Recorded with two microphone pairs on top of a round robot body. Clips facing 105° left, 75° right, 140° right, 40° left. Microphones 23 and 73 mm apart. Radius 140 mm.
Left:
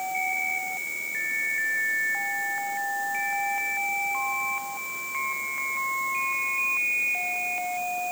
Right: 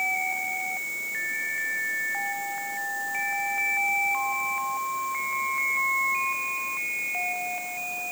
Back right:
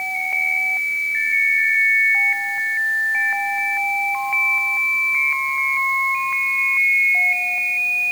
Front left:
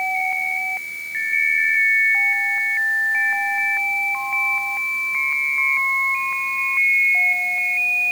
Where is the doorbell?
I don't hear a doorbell.